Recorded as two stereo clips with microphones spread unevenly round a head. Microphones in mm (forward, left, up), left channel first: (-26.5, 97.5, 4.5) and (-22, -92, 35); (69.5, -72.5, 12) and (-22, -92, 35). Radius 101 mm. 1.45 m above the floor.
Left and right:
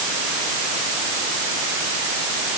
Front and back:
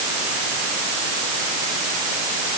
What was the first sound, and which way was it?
Only background noise.